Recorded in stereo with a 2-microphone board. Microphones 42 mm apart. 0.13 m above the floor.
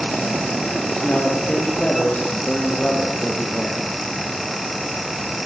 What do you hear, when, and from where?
1.0 s a man speaking: 35° left (ahead or behind), 7 m